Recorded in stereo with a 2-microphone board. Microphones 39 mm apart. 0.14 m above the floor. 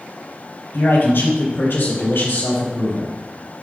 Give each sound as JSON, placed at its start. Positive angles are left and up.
{"t": 0.7, "sound": "a man speaking", "side_deg": 65, "distance_m": 4.0}